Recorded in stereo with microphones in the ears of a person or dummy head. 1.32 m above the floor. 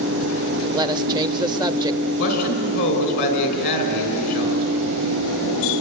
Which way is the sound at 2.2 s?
55° left (ahead or behind).